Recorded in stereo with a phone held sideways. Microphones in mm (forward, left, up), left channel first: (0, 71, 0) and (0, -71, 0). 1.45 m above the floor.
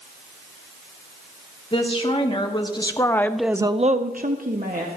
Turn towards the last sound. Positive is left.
turn(degrees=-70)  # may be behind; listen again after turning